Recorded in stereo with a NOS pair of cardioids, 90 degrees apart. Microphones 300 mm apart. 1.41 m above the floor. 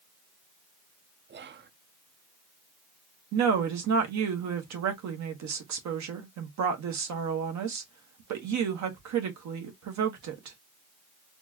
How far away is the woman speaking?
About 1.4 m.